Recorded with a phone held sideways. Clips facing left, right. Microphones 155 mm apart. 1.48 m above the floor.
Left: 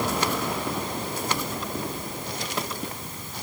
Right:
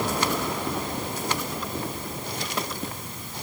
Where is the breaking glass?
I don't hear breaking glass.